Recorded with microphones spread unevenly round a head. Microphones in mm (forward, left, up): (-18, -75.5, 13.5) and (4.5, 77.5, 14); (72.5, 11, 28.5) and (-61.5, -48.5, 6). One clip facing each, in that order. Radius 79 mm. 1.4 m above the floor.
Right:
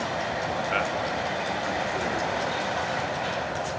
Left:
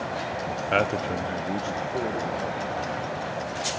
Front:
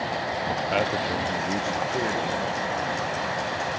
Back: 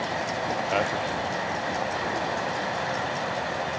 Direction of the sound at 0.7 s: 120° left.